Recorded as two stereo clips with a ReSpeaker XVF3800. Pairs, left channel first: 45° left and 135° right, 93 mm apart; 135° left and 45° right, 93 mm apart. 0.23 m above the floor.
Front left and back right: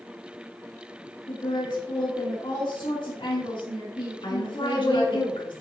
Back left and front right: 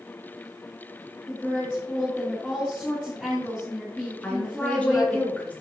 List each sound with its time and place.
1.3 s a woman speaking: 55° left, 2.5 m
4.2 s a woman speaking: 65° left, 2.5 m